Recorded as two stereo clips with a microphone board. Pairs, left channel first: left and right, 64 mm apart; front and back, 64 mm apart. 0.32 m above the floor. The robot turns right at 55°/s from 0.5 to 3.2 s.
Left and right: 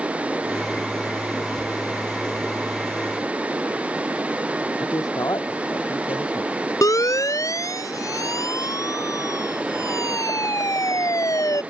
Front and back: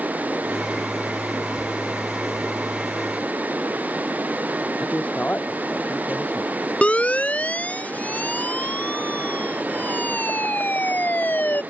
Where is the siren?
70° left; by 11.6 s 60° left.